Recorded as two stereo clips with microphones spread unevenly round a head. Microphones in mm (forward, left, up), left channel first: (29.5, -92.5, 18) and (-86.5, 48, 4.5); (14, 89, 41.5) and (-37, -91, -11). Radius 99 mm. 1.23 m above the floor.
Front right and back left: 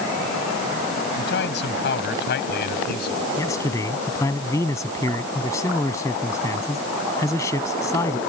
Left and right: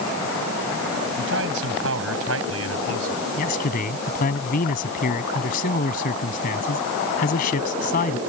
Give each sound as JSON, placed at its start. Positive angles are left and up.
{"t": 1.2, "sound": "a man speaking", "azimuth_deg": -75}
{"t": 3.4, "sound": "a man speaking", "azimuth_deg": 25}